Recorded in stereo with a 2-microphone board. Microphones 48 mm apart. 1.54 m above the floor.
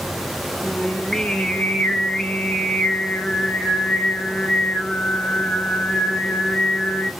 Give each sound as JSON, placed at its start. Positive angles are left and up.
{"t": 0.6, "sound": "singing", "side_deg": 15, "distance_m": 0.7}